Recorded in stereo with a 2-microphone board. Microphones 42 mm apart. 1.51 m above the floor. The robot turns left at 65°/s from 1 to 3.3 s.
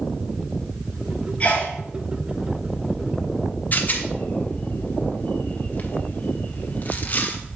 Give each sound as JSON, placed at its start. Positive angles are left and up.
{"t": 1.4, "sound": "a sneeze", "side_deg": 35, "distance_m": 3.5}
{"t": 3.7, "sound": "a rattle", "side_deg": 45, "distance_m": 1.0}